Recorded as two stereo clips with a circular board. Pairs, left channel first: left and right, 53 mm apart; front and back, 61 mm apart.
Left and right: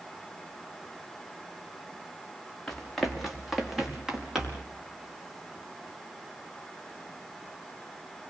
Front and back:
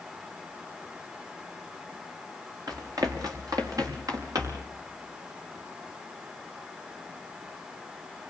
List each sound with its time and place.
2.7 s running footsteps: 170° left, 4 m; by 4.7 s 165° right, 5.5 m